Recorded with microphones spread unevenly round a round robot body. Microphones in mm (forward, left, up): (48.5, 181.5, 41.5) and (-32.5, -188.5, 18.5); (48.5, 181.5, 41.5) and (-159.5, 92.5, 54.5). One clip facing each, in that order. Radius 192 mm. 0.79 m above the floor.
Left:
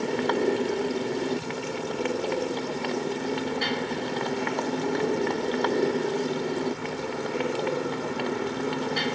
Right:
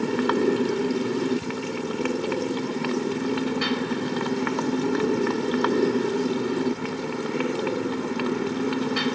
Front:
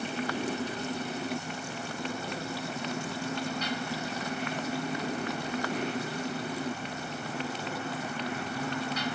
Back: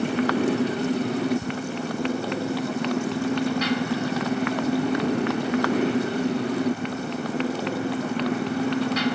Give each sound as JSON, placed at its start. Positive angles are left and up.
{"t": 0.0, "sound": "a motorcycle", "azimuth_deg": -175}
{"t": 1.4, "sound": "ticking", "azimuth_deg": 180}